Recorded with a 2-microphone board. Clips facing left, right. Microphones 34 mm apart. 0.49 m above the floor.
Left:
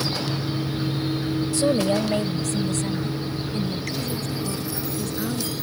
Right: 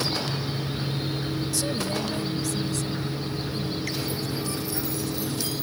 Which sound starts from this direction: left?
A woman speaking, at 1.5 s.